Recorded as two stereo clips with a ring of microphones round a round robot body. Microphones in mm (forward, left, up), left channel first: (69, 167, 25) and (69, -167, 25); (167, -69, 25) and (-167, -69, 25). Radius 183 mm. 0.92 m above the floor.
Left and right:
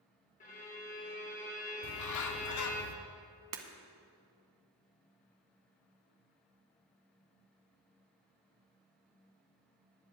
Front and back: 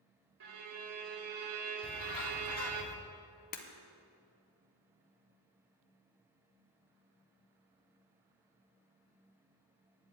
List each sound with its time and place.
0.4 s a violin: 160° left, 0.8 m
1.8 s a bird: 55° left, 0.7 m
3.5 s breaking glass: 60° right, 1.2 m